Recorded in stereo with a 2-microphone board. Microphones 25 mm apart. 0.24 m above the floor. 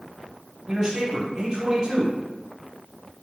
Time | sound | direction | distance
0.7 | a man speaking | 35° right (ahead or behind) | 1.2 m